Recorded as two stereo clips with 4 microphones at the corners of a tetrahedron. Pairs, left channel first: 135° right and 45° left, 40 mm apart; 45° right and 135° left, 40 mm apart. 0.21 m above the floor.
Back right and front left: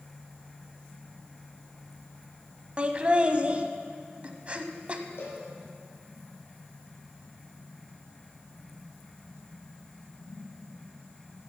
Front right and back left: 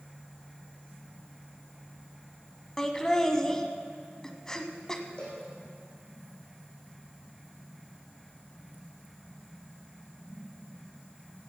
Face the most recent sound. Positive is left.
turn(degrees=-115)